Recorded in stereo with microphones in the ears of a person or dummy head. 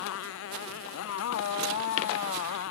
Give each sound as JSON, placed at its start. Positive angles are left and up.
{"t": 0.0, "sound": "a motorcycle", "side_deg": 75}